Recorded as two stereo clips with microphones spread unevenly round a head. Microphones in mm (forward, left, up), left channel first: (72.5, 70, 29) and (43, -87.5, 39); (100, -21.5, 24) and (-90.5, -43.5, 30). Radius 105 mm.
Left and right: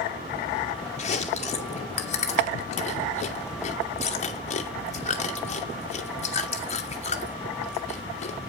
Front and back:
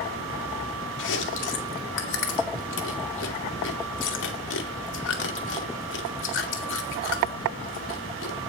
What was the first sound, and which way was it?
Chewing, 35° left.